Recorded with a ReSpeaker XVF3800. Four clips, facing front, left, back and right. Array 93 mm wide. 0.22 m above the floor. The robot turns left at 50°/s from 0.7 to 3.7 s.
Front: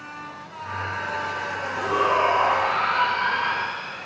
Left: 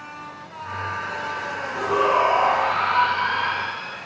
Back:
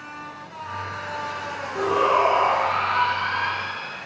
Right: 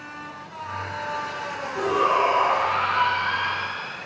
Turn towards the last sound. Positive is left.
turn(degrees=70)